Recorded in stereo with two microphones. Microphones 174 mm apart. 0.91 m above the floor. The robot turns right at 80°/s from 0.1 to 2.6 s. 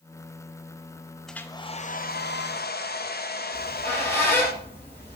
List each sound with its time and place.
1.3 s a hair dryer: straight ahead, 0.6 m; by 4.5 s 110° left, 0.6 m
3.5 s a squeak: 10° left (ahead or behind), 5 m